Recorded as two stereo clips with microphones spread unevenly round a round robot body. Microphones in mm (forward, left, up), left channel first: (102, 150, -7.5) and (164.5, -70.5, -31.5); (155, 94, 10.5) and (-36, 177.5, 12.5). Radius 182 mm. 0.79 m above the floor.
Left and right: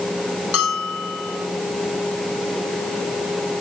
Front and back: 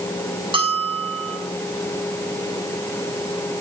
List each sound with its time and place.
0.5 s a bell: 90° left, 5.5 m